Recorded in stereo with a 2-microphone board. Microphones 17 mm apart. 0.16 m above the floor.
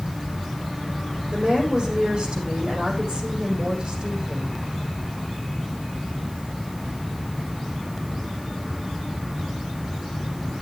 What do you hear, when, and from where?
1.3 s a woman speaking: 50° right (ahead or behind), 6.5 m